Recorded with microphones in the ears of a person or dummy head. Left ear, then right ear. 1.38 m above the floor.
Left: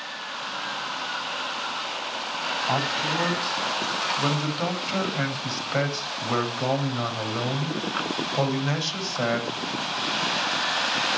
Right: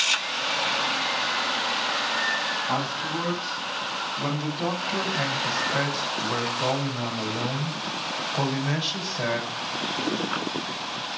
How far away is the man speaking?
About 7.5 m.